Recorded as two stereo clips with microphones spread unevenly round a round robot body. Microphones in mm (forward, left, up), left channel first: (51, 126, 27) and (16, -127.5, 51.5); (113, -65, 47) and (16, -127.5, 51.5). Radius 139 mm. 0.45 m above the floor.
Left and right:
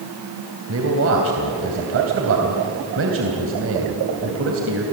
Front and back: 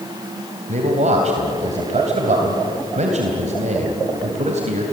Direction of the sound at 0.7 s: 140° right.